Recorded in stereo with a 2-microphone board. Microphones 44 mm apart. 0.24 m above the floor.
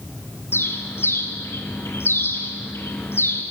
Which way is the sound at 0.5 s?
65° left (ahead or behind).